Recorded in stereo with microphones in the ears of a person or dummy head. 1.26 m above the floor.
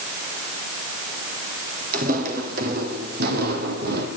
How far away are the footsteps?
About 3.5 m.